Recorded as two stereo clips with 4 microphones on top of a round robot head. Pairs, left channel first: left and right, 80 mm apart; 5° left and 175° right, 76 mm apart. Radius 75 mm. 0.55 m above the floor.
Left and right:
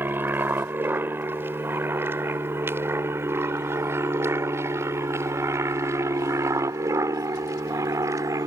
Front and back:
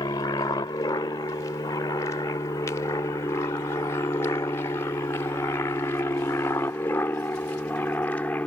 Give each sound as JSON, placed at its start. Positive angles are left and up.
{"t": 0.0, "sound": "an aircraft", "azimuth_deg": -30}